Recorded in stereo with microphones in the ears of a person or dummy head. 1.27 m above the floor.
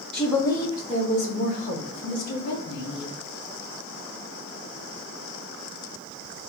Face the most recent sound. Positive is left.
turn(degrees=55)  # may be behind; listen again after turning